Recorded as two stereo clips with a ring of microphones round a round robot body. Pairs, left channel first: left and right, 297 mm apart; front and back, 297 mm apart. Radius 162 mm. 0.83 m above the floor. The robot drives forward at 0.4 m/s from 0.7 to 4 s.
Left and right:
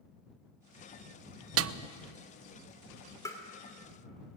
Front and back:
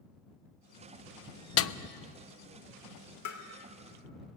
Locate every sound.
1.6 s a snare drum: 45° right, 0.6 m; by 1.7 s 50° right, 0.6 m
3.2 s tapping: 10° left, 3 m